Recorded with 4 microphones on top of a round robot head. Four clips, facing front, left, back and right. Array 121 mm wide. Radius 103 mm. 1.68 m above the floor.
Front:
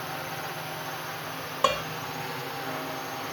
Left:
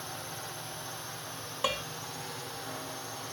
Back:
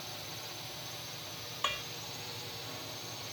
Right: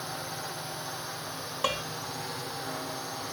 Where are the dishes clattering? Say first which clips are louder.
Right 2 dB, front 13 dB; straight ahead.